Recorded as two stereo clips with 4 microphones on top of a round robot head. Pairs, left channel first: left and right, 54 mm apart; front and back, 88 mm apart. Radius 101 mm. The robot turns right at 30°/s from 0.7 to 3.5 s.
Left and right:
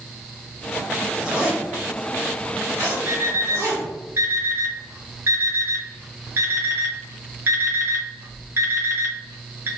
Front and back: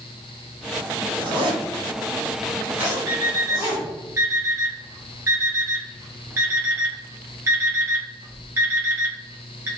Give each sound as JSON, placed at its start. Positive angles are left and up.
{"t": 1.2, "sound": "a zipper", "azimuth_deg": -170, "distance_m": 1.7}
{"t": 3.1, "sound": "an alarm clock", "azimuth_deg": -135, "distance_m": 1.1}